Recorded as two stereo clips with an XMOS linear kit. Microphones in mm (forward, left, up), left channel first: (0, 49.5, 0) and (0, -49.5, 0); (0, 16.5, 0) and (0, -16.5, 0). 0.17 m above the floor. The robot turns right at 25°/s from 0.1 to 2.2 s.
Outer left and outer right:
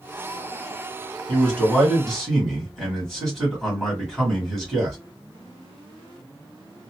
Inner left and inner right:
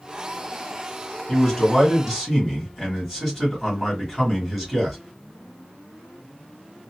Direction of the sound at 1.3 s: 10° left (ahead or behind).